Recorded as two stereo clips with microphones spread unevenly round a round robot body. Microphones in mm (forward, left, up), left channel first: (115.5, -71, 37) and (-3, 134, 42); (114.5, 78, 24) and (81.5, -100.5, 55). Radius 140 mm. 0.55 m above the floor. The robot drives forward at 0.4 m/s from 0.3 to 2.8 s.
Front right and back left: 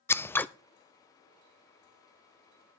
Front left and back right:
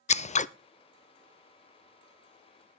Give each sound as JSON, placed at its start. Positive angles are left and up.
{"t": 0.1, "sound": "scissors", "azimuth_deg": 20, "distance_m": 0.6}